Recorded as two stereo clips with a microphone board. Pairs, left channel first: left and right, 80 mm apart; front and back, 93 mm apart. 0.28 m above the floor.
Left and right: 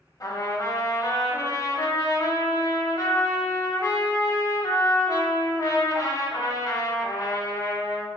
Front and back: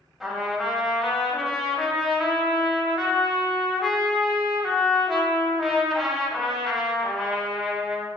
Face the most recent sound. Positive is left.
turn(degrees=95)